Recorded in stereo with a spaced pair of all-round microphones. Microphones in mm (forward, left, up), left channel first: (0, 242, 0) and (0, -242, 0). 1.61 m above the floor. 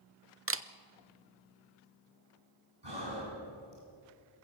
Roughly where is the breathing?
Right.